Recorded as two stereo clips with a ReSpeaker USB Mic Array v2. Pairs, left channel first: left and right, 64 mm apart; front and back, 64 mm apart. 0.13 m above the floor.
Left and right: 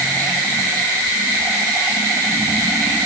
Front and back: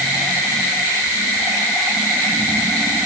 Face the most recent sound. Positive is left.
No sound to turn to.